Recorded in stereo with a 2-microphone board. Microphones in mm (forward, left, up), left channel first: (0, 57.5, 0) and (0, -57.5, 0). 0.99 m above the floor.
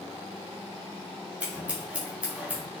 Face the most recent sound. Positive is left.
turn(degrees=-10)  # may be behind; listen again after turning